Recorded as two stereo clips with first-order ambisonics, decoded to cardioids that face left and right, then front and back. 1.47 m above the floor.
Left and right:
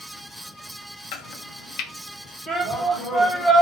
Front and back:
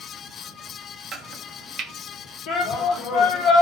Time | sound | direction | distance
1.1 | chopping | 125° left | 0.5 m
2.5 | a shout | straight ahead | 1.4 m